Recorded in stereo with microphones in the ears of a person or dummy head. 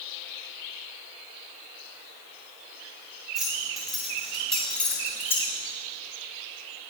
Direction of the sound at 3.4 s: 5° right (ahead or behind).